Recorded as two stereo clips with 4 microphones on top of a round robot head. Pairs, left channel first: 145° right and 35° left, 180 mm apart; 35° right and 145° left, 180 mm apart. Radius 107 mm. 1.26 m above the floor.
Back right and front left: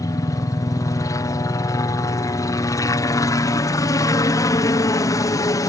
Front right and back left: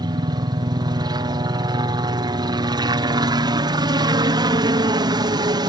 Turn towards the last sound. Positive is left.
turn(degrees=170)